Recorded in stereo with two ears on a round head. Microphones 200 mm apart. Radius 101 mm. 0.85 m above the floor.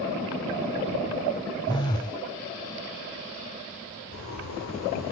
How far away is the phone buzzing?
About 0.7 m.